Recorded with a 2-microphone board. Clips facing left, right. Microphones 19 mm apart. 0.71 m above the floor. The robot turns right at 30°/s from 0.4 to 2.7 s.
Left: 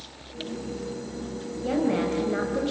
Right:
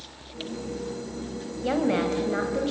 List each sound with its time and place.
1.6 s a woman speaking: 35° right, 3.5 m; by 2.7 s straight ahead, 3.5 m